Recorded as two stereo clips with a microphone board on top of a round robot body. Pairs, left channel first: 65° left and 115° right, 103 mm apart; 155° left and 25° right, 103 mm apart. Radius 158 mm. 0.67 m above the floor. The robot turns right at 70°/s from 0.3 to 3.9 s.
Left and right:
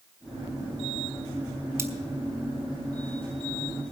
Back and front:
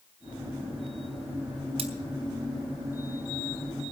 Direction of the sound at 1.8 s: 50° right.